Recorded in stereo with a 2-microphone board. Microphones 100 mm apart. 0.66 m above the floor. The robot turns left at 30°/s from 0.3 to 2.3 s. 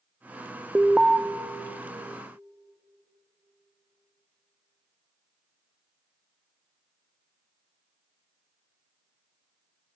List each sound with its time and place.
0.8 s an alarm: 10° right (ahead or behind), 0.6 m; by 1.2 s centre (ahead or behind), 0.6 m